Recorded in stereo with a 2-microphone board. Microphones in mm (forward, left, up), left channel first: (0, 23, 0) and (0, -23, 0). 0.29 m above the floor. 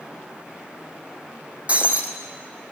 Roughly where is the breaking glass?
Right.